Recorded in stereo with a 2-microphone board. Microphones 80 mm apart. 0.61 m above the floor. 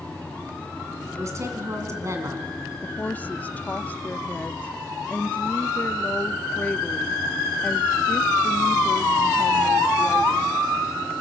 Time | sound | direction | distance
1.2 | a woman speaking | 40° right (ahead or behind) | 4.5 m
2.8 | a woman speaking | 20° left (ahead or behind) | 0.7 m